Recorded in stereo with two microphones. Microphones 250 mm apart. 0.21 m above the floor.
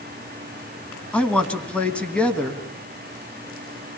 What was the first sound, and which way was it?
A man speaking, 5° left (ahead or behind).